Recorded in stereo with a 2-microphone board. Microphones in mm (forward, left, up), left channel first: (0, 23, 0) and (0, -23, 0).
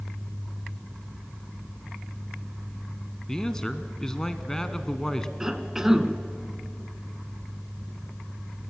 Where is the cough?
15° right (ahead or behind), 1.1 m.